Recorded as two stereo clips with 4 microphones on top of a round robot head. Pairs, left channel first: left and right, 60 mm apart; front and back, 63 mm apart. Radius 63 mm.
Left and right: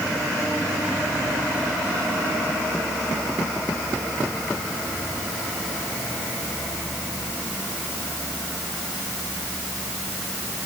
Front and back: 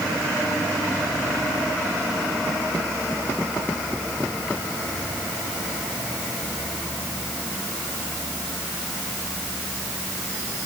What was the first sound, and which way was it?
Only background noise.